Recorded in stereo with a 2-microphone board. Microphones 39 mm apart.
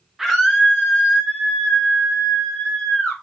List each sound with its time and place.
0.2 s a scream: 10° right (ahead or behind), 0.6 m; by 3.1 s 70° left (ahead or behind), 1.8 m